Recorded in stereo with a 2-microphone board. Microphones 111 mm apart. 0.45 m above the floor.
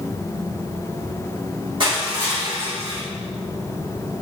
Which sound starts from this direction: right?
Crushing, at 1.8 s.